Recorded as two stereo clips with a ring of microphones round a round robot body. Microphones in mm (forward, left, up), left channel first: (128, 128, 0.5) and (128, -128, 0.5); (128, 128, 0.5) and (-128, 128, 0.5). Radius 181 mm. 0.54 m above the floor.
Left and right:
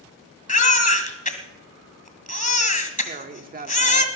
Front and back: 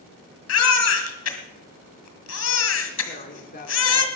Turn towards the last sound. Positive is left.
turn(degrees=-50)